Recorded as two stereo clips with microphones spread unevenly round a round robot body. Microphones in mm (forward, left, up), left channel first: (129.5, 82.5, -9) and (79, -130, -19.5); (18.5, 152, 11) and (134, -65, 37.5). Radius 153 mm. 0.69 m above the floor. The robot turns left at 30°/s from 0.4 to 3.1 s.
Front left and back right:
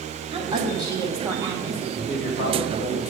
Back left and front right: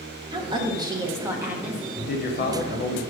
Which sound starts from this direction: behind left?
A man speaking, at 1.9 s.